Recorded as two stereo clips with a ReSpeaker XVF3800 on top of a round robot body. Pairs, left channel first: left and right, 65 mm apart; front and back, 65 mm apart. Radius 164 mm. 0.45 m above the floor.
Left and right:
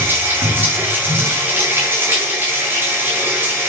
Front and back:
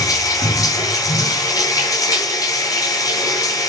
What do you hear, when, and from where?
0.0 s running water: 30° right, 9 m